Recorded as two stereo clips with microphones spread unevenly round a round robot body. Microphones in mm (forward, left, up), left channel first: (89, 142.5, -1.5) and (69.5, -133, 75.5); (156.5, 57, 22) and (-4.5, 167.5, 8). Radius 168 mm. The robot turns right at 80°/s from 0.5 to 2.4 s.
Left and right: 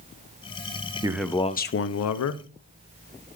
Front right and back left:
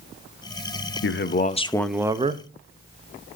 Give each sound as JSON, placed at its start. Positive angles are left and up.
{"t": 1.0, "sound": "a man speaking", "azimuth_deg": -15, "distance_m": 0.8}